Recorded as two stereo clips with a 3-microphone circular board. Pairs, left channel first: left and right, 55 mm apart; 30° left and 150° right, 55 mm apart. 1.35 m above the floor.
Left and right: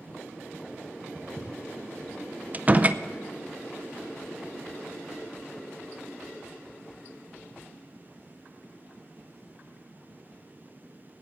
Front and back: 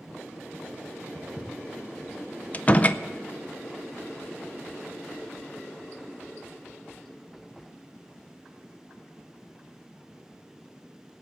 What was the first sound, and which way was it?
Footsteps, 10° right.